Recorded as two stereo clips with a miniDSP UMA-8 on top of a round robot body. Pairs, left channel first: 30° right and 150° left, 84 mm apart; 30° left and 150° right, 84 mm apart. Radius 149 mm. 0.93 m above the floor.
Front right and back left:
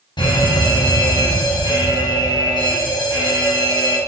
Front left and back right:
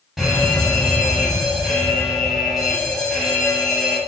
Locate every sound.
0.2 s an alarm: 65° right, 9 m